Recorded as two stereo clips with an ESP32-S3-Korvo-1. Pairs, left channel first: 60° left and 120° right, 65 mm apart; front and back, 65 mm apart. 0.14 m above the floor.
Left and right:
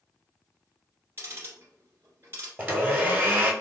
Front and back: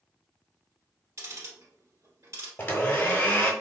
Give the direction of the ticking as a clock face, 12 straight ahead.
5 o'clock.